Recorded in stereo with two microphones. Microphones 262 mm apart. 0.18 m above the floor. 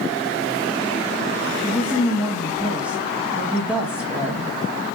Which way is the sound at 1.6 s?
5° right (ahead or behind).